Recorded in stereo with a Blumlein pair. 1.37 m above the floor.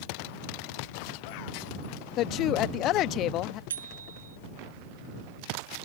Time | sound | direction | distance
2.2 | a woman speaking | 35° left | ?
3.7 | a bicycle bell | 65° right | ?